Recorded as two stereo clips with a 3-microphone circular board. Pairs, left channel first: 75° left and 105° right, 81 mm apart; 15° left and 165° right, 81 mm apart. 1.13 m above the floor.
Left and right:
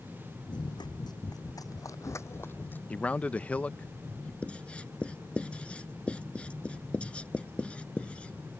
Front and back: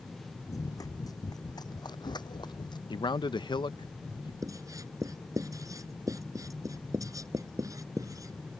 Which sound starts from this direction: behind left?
Writing, at 4.4 s.